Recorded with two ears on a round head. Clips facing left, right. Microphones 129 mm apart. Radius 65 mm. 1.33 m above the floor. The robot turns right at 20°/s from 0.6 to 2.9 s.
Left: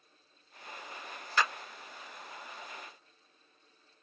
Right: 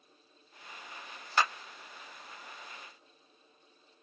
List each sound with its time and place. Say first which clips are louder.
1.4 s a clap: right 1 dB; 25° right (ahead or behind), 1.4 m; by 1.5 s 30° right (ahead or behind), 1.4 m